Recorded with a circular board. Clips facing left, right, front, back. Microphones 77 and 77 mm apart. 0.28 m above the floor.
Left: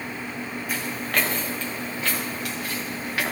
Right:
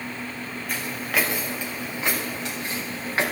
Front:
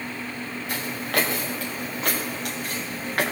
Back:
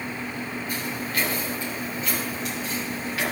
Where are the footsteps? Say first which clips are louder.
Even, front 5 dB; 5° left, 2.5 m; by 3.2 s 35° right, 4 m.